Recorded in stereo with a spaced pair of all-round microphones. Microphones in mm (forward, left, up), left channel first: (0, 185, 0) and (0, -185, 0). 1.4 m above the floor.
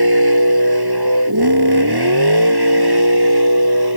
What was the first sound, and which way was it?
A vehicle, 80° right.